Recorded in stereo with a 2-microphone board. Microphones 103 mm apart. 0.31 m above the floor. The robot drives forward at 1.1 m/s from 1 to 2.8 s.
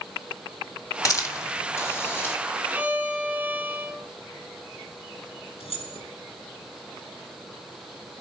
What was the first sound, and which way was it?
A hiss, 35° left (ahead or behind).